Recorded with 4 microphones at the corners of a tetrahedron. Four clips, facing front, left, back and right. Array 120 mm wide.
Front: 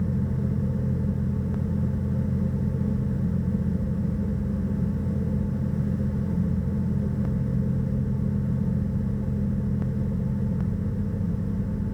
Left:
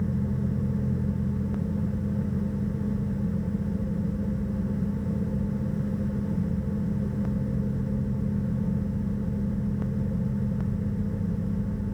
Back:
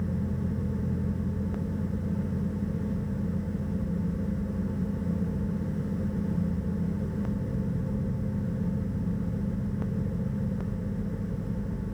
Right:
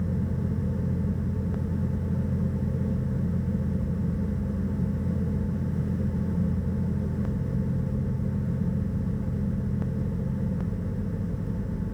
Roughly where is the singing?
I don't hear singing.